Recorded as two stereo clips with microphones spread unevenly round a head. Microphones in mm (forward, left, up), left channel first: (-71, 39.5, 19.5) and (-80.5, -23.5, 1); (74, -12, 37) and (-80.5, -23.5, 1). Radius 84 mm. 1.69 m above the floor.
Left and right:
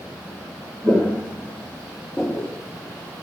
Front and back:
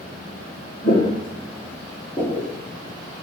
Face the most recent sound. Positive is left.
turn(degrees=50)